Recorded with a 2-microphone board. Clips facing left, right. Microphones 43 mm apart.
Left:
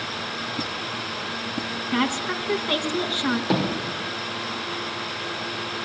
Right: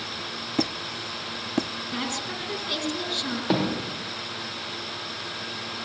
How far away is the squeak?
About 0.8 m.